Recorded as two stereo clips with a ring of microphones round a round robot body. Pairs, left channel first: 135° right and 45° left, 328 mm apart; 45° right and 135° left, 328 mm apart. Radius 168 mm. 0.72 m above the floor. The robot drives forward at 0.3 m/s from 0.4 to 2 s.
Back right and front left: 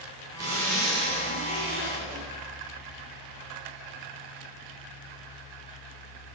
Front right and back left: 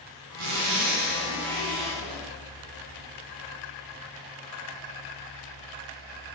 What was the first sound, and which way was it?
A zipper, 125° left.